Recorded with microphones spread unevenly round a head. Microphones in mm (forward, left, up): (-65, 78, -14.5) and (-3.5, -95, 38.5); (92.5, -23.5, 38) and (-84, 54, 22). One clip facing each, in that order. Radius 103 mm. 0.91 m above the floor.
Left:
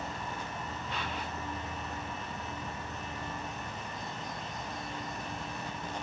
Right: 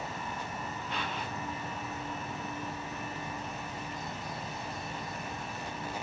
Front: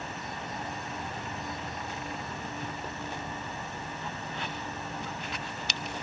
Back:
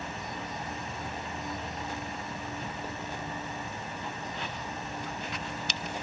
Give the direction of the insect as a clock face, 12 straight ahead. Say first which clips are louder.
Even, back 1 dB; 3 o'clock.